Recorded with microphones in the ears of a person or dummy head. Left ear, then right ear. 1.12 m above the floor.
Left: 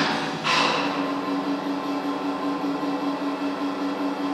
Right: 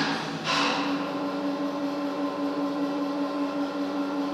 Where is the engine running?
30° left (ahead or behind), 1.0 m.